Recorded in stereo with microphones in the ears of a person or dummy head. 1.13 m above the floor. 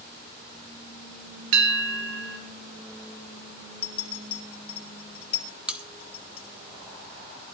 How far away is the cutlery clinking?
About 0.8 m.